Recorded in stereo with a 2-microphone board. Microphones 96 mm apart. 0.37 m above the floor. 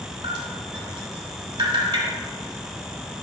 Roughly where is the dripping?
Right.